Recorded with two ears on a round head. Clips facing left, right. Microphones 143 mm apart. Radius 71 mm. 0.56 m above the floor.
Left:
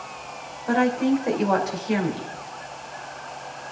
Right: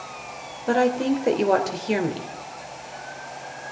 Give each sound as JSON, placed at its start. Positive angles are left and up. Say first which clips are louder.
{"t": 0.7, "sound": "a woman speaking", "louder": "even", "side_deg": -35, "distance_m": 1.8}